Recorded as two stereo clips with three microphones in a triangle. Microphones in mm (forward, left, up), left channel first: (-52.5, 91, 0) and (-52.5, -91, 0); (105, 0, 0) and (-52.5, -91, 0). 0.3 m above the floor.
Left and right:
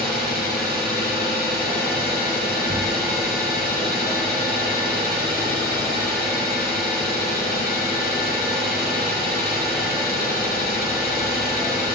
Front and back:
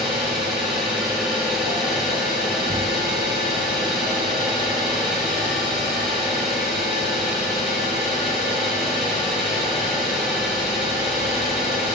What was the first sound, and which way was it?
An engine running, 120° left.